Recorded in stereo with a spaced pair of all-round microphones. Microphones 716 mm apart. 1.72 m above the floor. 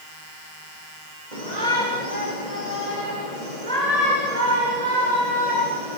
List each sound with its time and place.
1.3 s a shout: 70° right (ahead or behind), 7 m; by 6.0 s 50° right (ahead or behind), 9.5 m